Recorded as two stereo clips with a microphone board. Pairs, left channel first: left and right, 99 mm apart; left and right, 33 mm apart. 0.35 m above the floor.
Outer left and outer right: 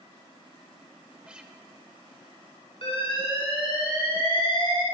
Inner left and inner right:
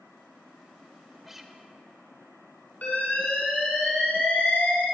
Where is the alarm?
70° left (ahead or behind), 4 m.